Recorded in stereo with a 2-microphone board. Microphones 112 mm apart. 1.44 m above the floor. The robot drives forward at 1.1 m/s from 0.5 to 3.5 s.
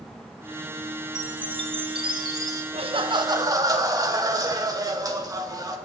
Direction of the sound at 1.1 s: 35° right (ahead or behind).